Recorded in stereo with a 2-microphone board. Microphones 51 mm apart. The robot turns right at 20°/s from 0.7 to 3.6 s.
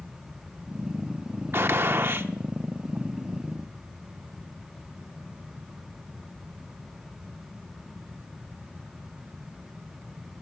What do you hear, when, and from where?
1.5 s a gunshot: 45° right (ahead or behind), 0.7 m